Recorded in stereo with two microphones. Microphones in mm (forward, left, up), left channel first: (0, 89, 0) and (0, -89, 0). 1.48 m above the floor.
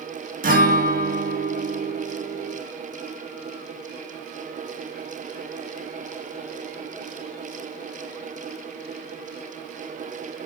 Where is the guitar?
50° right (ahead or behind), 1.4 m.